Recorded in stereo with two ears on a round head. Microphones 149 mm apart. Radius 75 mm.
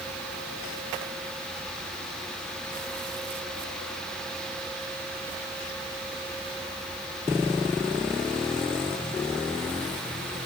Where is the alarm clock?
I don't hear an alarm clock.